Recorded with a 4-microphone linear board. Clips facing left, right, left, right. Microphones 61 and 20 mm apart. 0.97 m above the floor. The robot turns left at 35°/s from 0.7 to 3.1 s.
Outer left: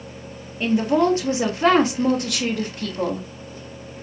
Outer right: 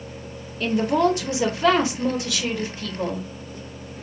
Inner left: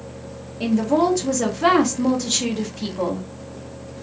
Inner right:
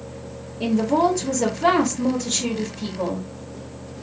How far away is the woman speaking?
About 1.1 m.